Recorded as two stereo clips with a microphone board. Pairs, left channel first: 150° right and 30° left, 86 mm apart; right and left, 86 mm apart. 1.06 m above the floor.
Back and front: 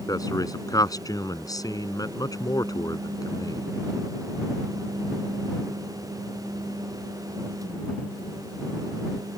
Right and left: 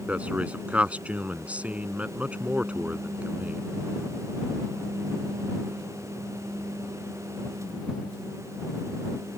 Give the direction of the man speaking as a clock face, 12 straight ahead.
7 o'clock.